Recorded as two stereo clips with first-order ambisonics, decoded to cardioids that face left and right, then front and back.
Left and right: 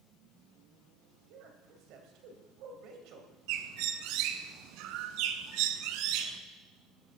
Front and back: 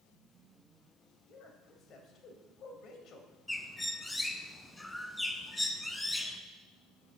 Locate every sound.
1.3 s a man speaking: 60° right, 2.5 m
3.5 s a bird: 85° right, 1.0 m